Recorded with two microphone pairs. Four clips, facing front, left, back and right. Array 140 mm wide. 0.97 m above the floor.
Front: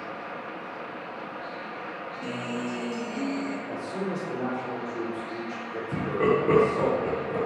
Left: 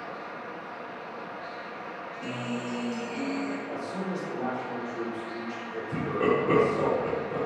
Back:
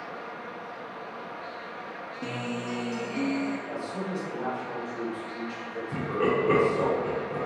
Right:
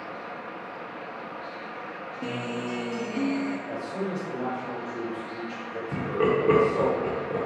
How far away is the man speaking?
About 1.7 m.